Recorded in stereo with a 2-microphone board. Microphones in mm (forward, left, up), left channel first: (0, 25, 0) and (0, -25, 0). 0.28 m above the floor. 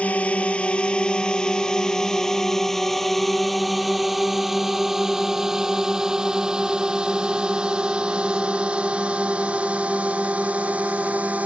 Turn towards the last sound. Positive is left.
turn(degrees=-30)  # may be behind; listen again after turning